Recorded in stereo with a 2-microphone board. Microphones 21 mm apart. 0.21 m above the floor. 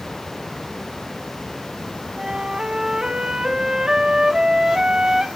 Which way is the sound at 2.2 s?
30° right (ahead or behind).